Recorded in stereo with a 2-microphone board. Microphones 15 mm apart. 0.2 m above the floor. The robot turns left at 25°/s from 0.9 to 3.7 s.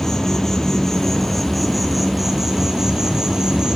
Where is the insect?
15° left, 2.5 m; by 3.8 s 55° right, 2.5 m.